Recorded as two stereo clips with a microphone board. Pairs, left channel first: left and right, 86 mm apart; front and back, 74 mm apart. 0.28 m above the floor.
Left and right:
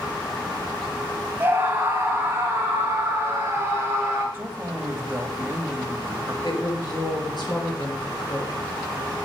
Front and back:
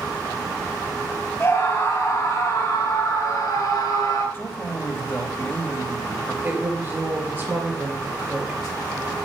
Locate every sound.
1.4 s a scream: 40° right, 1.5 m; by 4.2 s 35° right, 3 m
4.3 s a man speaking: 45° right, 1.2 m
6.4 s a woman speaking: 115° left, 4.5 m